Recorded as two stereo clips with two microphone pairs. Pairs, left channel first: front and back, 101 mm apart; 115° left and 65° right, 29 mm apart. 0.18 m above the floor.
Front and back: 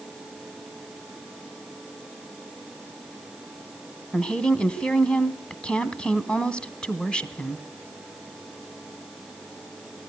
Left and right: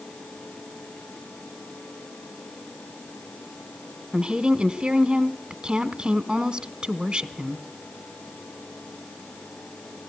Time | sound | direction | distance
4.1 | a woman speaking | 70° right | 1.1 m